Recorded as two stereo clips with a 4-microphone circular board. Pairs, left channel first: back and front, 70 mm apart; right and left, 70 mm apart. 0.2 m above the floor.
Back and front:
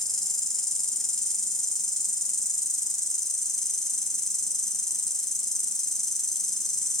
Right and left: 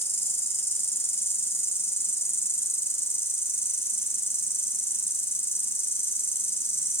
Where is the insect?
100° right, 1.3 m.